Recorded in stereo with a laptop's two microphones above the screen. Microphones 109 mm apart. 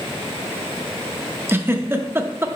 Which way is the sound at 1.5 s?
20° right (ahead or behind).